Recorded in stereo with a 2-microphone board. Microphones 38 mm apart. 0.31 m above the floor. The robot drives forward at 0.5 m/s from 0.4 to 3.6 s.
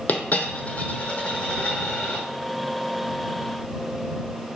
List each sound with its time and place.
0.1 s a dropped coin: 50° left (ahead or behind), 0.6 m; by 2.2 s 20° left (ahead or behind), 1.4 m